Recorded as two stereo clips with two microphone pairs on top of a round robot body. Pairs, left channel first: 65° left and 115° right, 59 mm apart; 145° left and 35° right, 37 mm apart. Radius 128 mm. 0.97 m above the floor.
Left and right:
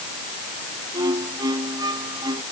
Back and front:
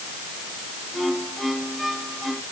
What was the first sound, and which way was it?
A violin, 120° right.